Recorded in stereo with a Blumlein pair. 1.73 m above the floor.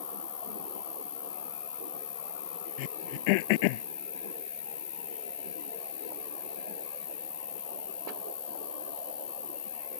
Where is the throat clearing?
45° left.